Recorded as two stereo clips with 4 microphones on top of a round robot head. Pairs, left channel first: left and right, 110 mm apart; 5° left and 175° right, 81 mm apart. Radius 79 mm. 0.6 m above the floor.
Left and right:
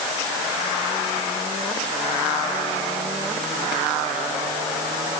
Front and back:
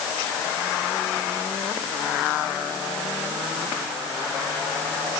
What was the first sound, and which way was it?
Only background noise.